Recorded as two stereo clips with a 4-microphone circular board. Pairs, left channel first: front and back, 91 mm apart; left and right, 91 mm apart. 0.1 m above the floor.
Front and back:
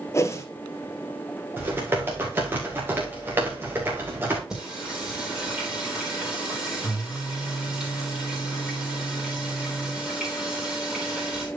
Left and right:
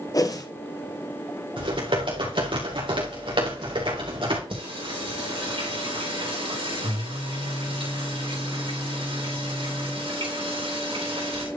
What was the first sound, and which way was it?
A whoosh, 50° left.